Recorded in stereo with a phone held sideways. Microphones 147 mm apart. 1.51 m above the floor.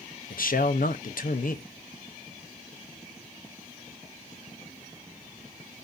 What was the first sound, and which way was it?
A man speaking, 70° left (ahead or behind).